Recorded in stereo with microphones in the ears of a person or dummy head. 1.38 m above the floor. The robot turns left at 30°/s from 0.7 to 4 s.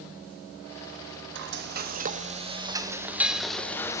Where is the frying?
120° right, 0.7 m; by 4.0 s 160° left, 0.7 m.